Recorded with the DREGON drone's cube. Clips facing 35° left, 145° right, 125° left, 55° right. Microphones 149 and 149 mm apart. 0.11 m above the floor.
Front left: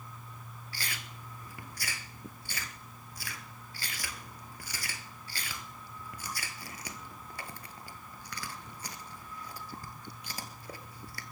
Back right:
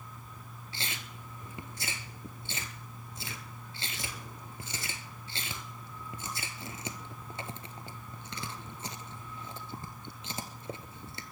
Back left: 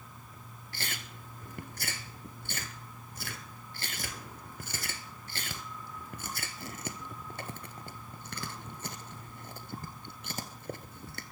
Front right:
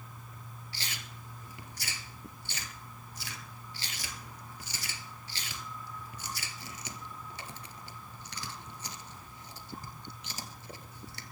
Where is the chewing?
150° left, 1.3 m.